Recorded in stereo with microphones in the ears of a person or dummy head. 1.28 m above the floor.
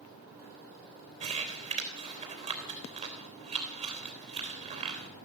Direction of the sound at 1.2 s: 35° right (ahead or behind).